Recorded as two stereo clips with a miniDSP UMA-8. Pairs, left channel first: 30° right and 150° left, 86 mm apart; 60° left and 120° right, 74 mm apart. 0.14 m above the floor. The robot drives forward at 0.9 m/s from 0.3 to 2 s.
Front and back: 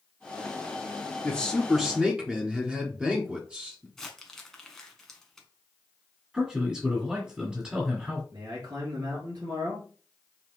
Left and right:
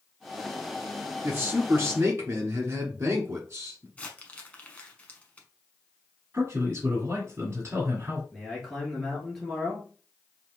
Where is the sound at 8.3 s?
145° left, 2.5 m.